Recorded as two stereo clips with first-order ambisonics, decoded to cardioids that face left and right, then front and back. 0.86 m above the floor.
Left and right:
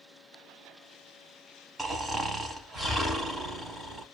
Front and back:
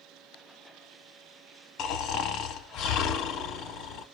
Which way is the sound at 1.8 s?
15° right.